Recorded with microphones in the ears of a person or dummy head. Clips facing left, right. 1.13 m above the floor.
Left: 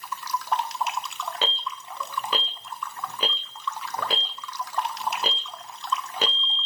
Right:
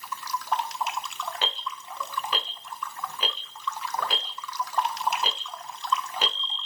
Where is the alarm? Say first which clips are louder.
Left 2 dB; 60° left (ahead or behind), 1.9 m.